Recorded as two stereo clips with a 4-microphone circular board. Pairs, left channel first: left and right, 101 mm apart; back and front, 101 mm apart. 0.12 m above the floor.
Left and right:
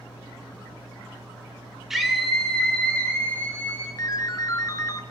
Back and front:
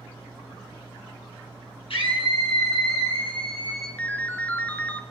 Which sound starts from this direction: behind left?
A ringtone, at 4.0 s.